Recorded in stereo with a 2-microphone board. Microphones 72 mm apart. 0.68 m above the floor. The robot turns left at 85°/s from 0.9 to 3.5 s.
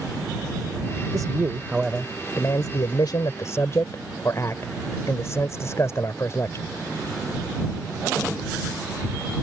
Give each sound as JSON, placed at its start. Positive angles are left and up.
{"t": 1.1, "sound": "a man speaking", "azimuth_deg": -115}